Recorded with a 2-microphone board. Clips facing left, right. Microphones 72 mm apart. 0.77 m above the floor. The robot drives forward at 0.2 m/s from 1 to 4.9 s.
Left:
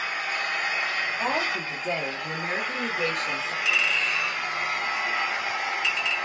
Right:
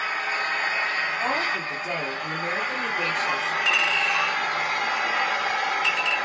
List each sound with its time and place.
0.0 s an engine running: 40° right (ahead or behind), 1.1 m; by 6.3 s 60° right (ahead or behind), 0.8 m
1.2 s a woman speaking: centre (ahead or behind), 1.3 m
3.6 s a clink: 45° right (ahead or behind), 2.0 m; by 6.2 s 40° right (ahead or behind), 2 m